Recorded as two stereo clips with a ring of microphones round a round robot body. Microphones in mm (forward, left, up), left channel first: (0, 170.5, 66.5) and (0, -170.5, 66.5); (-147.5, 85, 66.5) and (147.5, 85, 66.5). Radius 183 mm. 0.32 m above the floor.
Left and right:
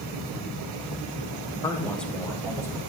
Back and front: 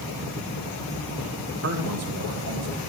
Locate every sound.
1.6 s a man speaking: 15° left, 2 m; by 2.8 s 10° right, 3 m